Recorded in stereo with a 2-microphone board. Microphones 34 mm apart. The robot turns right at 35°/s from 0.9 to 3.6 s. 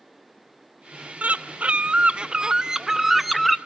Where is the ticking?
I don't hear ticking.